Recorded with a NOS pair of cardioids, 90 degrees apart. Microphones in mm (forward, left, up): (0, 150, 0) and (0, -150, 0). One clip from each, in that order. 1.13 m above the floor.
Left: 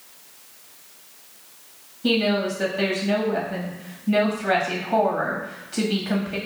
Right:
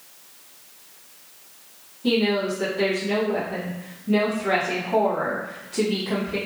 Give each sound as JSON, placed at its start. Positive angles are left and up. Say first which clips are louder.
{"t": 2.0, "sound": "a woman speaking", "louder": "even", "azimuth_deg": 25, "distance_m": 1.5}